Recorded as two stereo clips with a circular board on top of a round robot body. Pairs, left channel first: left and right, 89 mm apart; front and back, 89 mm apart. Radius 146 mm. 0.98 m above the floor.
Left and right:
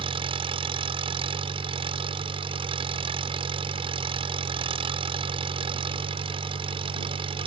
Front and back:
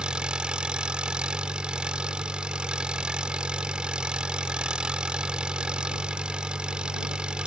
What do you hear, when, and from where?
0.0 s an engine running: 100° right